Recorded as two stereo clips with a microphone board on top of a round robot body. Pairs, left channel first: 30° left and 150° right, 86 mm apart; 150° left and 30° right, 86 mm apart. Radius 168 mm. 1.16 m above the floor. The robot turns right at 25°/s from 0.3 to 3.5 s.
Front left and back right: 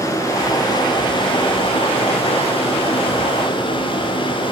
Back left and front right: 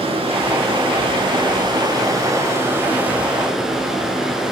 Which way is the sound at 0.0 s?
25° right.